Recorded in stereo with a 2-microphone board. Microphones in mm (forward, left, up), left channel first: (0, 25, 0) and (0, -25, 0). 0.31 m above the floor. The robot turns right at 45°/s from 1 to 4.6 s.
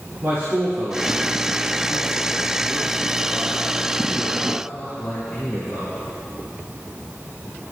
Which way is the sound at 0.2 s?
60° right (ahead or behind).